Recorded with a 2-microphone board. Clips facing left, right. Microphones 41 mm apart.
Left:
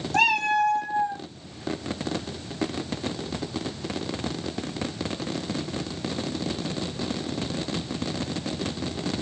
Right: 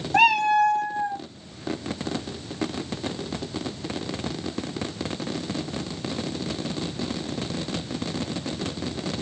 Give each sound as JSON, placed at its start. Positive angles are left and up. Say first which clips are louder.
{"t": 0.1, "sound": "a cat meowing", "louder": "right 3 dB", "side_deg": -20, "distance_m": 0.9}